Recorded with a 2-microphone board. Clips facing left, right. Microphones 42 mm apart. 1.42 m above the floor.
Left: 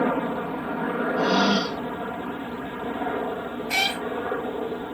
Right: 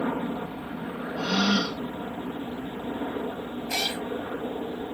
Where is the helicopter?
50° left (ahead or behind).